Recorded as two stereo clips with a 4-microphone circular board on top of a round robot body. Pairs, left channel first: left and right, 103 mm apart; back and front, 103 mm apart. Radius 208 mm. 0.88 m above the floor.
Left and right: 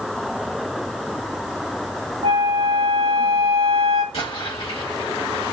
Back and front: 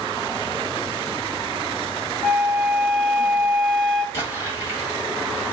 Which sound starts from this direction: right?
A flute, at 2.2 s.